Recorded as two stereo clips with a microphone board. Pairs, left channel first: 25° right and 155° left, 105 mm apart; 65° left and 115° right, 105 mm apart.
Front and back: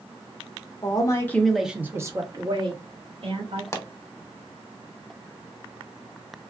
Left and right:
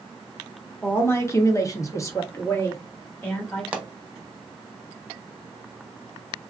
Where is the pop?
45° right, 0.6 m.